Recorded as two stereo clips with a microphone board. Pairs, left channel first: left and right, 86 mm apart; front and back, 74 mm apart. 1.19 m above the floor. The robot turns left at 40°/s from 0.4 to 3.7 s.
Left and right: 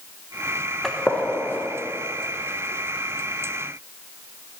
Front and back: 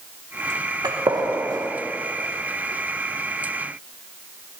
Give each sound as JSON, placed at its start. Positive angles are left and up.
{"t": 0.8, "sound": "a gunshot", "azimuth_deg": 175, "distance_m": 1.2}